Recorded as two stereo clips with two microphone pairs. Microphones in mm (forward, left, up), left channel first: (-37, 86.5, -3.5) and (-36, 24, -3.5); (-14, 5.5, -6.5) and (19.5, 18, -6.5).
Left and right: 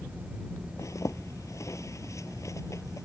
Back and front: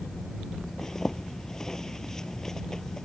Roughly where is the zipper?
Behind left.